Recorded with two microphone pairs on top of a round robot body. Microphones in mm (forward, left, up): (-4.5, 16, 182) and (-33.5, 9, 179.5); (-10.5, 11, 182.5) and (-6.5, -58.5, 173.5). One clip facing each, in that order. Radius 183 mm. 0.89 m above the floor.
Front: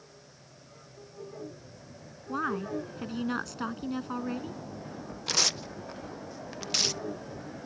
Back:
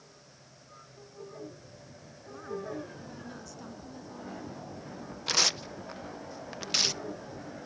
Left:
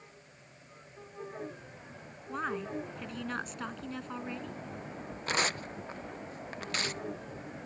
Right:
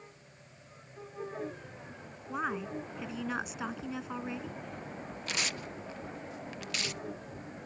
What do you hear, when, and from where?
2.3 s a woman speaking: 5° right
5.3 s tearing paper: 130° left